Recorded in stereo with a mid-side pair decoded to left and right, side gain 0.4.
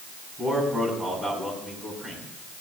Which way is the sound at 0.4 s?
30° right.